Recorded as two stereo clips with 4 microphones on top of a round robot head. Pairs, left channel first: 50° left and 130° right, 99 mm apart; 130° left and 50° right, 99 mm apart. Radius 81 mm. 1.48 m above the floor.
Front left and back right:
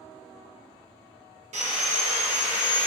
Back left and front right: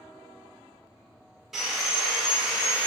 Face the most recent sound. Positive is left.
turn(degrees=-140)